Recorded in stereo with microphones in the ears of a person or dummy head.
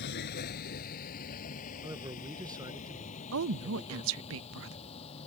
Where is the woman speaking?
75° right (ahead or behind).